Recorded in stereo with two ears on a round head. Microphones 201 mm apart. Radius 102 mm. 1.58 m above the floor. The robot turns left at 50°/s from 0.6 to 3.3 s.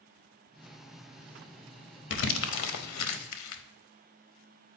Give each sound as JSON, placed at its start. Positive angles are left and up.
{"t": 2.1, "sound": "crumpling", "side_deg": 60, "distance_m": 0.8}